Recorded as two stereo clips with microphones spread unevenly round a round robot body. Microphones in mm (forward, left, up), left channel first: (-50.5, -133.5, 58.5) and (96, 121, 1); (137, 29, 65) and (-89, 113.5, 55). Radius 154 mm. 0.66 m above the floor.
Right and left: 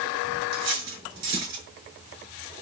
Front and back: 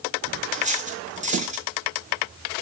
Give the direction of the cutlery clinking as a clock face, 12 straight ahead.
9 o'clock.